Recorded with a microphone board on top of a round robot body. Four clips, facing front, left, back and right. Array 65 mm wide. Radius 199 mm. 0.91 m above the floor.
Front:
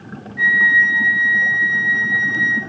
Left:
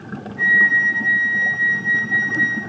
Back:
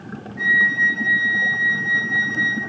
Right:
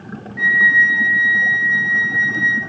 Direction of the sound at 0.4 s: 75° right.